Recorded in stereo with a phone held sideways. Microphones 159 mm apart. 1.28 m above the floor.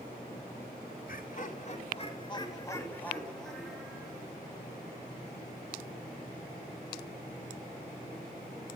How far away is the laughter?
About 3 m.